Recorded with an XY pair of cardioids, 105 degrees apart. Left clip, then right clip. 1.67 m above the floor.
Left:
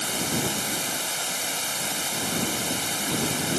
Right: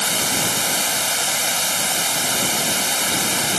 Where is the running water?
55° right.